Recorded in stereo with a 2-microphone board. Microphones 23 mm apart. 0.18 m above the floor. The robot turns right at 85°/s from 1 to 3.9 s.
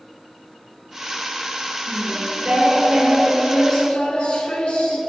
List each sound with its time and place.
1.9 s singing: 100° right, 1.1 m; by 5.0 s 70° left, 1.1 m